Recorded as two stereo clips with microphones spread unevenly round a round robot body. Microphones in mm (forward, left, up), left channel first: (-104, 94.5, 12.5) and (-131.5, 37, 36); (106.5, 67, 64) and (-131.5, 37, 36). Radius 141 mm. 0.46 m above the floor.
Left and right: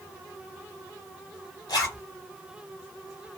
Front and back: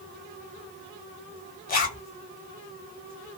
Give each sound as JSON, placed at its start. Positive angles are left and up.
{"t": 1.7, "sound": "a zipper", "azimuth_deg": 65, "distance_m": 1.1}